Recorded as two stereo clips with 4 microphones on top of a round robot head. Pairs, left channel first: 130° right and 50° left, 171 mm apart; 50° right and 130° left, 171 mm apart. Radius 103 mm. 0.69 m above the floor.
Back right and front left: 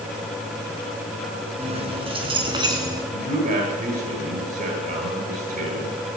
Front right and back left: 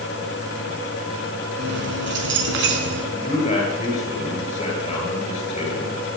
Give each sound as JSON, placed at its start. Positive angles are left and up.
{"t": 1.6, "sound": "keys jangling", "azimuth_deg": 105, "distance_m": 5.0}
{"t": 3.1, "sound": "a man speaking", "azimuth_deg": 10, "distance_m": 9.5}